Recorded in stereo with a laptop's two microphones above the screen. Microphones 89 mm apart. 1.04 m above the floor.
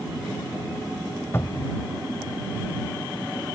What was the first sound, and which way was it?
A cupboard door, 30° left (ahead or behind).